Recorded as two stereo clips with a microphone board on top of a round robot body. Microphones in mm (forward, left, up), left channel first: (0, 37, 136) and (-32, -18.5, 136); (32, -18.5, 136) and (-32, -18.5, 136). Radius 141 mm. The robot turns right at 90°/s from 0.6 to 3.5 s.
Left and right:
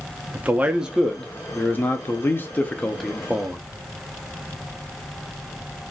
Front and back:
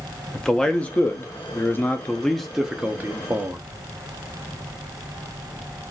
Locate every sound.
0.3 s a man speaking: 75° right, 0.6 m; by 3.6 s 175° right, 0.6 m